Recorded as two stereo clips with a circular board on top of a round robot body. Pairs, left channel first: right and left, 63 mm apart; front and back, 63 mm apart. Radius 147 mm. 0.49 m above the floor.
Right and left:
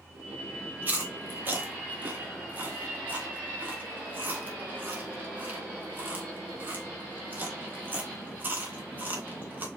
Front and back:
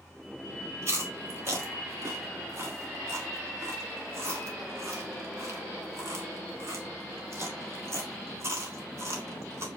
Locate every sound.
0.8 s chewing: 145° left, 1.9 m